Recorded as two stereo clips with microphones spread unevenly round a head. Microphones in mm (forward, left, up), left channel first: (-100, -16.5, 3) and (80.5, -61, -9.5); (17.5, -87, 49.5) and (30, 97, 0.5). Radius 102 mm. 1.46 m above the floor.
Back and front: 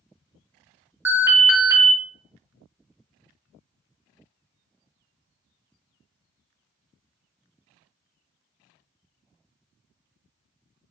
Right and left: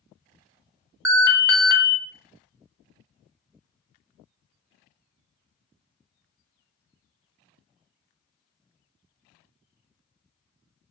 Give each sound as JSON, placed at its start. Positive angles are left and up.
{"t": 1.1, "sound": "an alarm", "azimuth_deg": 50, "distance_m": 0.6}